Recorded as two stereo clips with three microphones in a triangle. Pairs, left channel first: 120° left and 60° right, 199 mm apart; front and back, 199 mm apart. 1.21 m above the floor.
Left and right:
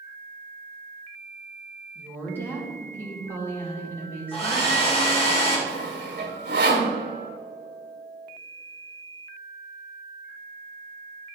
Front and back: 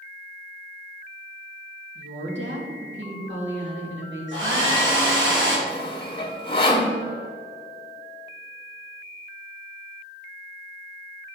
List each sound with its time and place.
1.9 s a woman speaking: 160° right, 2.5 m
4.3 s a hair dryer: straight behind, 2 m
5.7 s sawing: 60° right, 1.6 m